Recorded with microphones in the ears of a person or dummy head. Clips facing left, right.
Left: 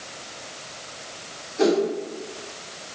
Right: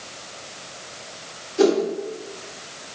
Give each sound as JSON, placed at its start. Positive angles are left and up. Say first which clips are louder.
{"t": 1.6, "sound": "a whoosh", "louder": "right 2 dB", "side_deg": -45, "distance_m": 0.5}